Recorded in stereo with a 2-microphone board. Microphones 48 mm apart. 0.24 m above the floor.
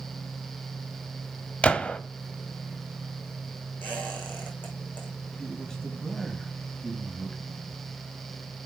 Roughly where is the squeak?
Left.